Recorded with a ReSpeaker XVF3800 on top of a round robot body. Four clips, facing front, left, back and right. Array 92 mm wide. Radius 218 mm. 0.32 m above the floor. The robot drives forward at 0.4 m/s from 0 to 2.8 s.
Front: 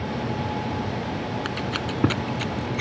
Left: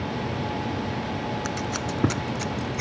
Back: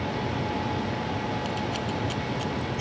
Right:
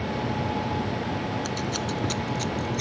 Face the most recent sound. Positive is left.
turn(degrees=30)